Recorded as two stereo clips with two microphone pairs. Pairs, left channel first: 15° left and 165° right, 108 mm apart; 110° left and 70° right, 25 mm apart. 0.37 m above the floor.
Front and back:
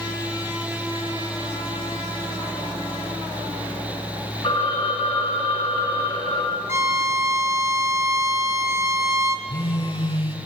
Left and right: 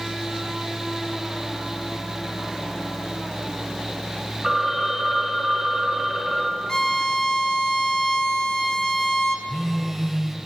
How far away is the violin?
About 0.6 m.